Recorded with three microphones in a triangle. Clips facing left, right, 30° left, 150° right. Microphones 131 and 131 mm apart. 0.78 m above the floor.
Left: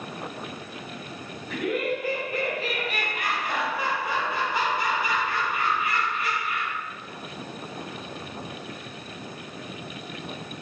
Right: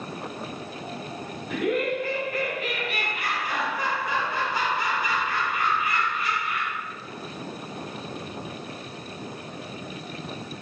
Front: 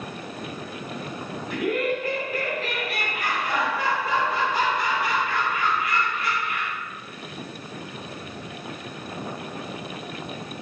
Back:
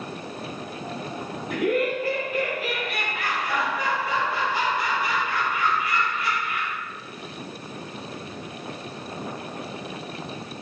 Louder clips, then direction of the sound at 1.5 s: Right 2 dB, back 2 dB; 175° right.